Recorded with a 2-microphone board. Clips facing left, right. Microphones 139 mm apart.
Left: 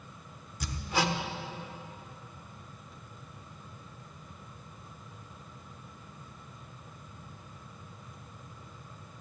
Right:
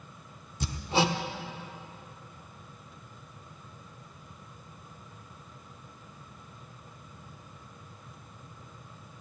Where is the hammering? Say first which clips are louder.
Right 4 dB; 25° right (ahead or behind), 0.9 m.